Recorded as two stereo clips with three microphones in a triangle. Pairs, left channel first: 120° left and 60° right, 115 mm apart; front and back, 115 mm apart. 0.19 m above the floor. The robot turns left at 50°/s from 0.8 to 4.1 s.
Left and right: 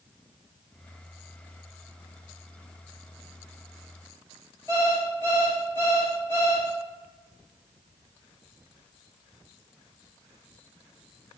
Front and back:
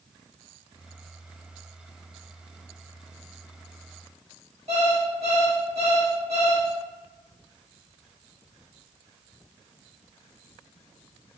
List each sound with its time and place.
4.7 s an alarm clock: 175° right, 1.6 m